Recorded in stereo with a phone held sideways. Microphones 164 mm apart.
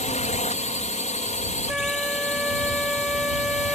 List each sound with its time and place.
0.0 s a drone: 45° left (ahead or behind)
1.7 s a flute: 5° right (ahead or behind)